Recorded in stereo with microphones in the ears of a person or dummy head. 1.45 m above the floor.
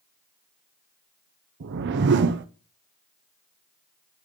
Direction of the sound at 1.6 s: 55° right (ahead or behind).